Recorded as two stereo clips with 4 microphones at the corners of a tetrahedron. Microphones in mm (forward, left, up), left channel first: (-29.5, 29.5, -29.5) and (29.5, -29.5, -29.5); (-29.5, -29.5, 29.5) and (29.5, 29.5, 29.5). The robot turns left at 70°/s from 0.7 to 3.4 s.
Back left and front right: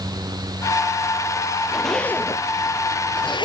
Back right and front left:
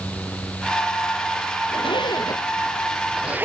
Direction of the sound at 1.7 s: 130° right.